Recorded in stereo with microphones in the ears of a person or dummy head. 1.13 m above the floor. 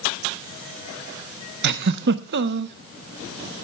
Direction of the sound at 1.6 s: 55° right (ahead or behind).